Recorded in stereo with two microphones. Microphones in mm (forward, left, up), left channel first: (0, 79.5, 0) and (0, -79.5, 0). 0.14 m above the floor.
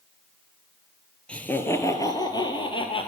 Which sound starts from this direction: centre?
Laughter, at 1.3 s.